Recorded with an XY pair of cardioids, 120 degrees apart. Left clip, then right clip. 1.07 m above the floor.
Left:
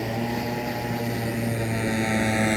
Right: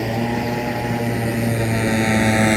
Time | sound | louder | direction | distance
0.0 | a motorcycle | right 6 dB | 35° right | ?